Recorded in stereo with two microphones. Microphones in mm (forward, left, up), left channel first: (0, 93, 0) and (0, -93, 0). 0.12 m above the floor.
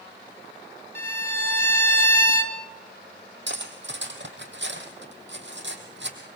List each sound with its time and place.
0.9 s a violin: 10° left (ahead or behind), 1.1 m
3.5 s cutlery clinking: 70° right (ahead or behind), 2.5 m